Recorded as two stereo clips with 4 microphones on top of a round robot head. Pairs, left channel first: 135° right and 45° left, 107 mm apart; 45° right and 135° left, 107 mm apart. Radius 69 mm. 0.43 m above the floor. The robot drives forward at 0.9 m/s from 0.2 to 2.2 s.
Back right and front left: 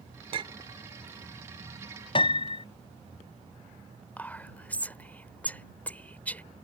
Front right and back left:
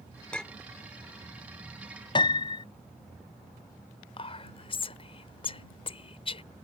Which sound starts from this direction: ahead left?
A clink, at 0.3 s.